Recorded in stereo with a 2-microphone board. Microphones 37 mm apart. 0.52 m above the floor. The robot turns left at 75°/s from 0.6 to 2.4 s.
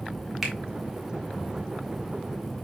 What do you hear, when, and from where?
0.4 s a finger snap: 5° right (ahead or behind), 1.3 m